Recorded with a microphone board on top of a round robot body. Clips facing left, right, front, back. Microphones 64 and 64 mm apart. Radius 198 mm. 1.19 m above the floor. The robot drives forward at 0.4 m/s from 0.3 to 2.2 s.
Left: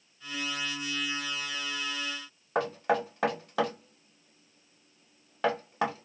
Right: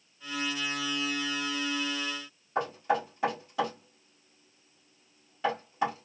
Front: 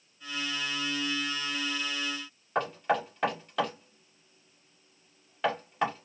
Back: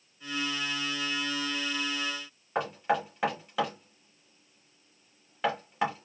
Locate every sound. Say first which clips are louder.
2.5 s knocking: left 1 dB, even; 95° left, 2 m